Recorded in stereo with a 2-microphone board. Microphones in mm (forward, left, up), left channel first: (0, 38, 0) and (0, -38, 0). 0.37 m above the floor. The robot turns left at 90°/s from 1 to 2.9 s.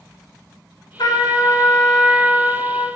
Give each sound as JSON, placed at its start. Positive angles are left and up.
{"t": 1.0, "sound": "a trumpet", "azimuth_deg": 90, "distance_m": 0.8}